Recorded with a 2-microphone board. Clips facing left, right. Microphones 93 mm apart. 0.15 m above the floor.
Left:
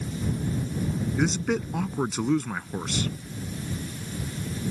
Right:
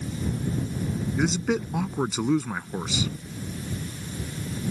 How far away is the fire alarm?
I don't hear a fire alarm.